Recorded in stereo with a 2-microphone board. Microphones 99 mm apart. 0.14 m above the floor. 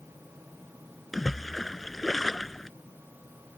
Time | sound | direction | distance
1.1 | a splash | centre (ahead or behind) | ?